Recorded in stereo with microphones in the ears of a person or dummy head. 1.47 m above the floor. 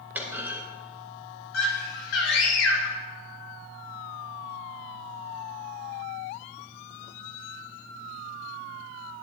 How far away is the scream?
About 2.5 m.